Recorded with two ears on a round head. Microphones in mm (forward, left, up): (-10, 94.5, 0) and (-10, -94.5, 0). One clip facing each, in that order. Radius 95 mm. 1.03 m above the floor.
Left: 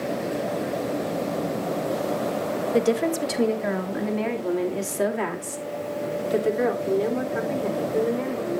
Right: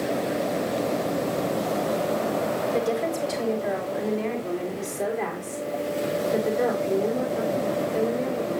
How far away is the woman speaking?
About 1.4 m.